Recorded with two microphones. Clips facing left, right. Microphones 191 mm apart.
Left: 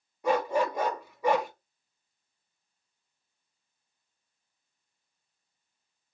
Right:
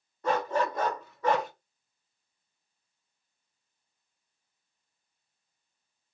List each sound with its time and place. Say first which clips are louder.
0.2 s a dog barking: left 2 dB; 10° left (ahead or behind), 0.9 m